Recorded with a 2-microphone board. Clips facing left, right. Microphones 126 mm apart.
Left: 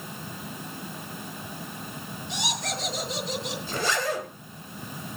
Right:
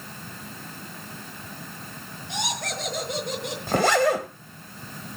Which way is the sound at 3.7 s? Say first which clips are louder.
Right 9 dB; 65° right (ahead or behind).